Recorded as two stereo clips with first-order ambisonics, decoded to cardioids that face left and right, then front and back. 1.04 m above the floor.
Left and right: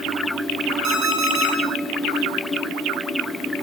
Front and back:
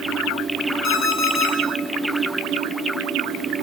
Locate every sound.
0.8 s an alarm clock: 50° right, 1.1 m